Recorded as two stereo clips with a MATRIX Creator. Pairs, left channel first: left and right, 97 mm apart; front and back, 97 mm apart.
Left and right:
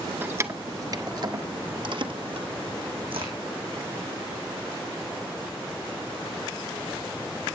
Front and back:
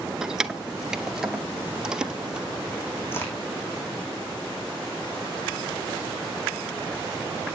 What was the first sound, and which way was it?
Keys jangling, 105° right.